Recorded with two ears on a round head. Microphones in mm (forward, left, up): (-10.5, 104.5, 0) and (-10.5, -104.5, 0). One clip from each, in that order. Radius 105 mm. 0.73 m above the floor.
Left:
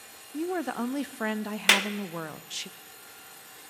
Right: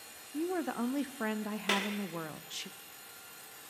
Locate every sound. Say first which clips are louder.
0.3 s a woman speaking: left 4 dB; 10° left (ahead or behind), 0.5 m
1.7 s a clap: left 10 dB; 60° left (ahead or behind), 1.1 m